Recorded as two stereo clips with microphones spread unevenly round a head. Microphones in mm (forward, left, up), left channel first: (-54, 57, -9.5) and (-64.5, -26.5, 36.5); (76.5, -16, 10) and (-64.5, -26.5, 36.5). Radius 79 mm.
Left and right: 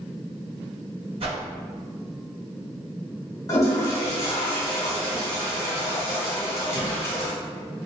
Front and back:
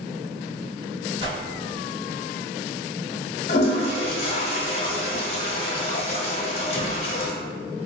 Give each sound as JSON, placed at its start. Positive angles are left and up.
{"t": 1.2, "sound": "a whoosh", "azimuth_deg": -120, "distance_m": 1.2}
{"t": 3.5, "sound": "a toilet flushing", "azimuth_deg": -10, "distance_m": 0.7}